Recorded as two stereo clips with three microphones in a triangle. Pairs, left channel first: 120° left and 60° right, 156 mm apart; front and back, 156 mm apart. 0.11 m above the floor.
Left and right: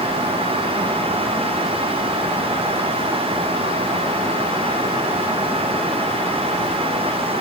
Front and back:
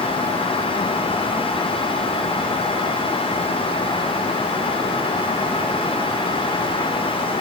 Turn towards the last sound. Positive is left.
No sound to turn to.